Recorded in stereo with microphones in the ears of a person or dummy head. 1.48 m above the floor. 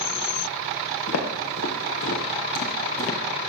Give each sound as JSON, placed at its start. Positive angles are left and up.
{"t": 1.1, "sound": "footsteps", "side_deg": 70, "distance_m": 4.0}